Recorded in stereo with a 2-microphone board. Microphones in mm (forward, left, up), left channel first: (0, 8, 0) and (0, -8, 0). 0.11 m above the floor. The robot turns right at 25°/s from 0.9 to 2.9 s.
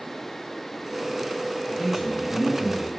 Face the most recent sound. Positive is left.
turn(degrees=-75)